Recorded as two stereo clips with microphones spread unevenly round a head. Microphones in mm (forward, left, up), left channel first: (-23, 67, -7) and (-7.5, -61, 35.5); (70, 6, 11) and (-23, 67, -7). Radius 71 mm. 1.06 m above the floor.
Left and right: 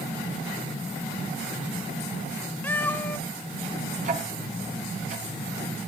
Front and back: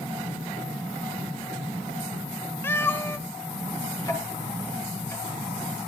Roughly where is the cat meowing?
Ahead.